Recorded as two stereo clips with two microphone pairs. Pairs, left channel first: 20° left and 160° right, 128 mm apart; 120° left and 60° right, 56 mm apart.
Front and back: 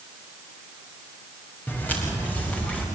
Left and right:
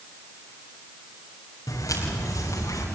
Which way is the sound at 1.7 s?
100° left.